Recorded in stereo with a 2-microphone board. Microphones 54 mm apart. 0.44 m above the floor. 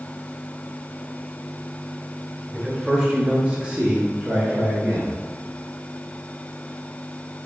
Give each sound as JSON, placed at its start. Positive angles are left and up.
{"t": 2.5, "sound": "a man speaking", "side_deg": -10, "distance_m": 1.3}